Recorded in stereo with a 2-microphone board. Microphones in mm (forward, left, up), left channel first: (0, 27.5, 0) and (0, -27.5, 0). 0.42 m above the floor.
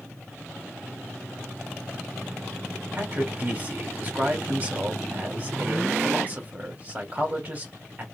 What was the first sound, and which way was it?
A man speaking, 30° right (ahead or behind).